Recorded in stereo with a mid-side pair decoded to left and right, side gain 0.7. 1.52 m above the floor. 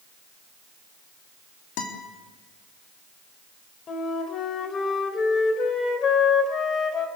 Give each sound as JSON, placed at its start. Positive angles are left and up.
{"t": 1.8, "sound": "a guitar", "azimuth_deg": 65, "distance_m": 3.5}
{"t": 3.9, "sound": "a flute", "azimuth_deg": 40, "distance_m": 3.0}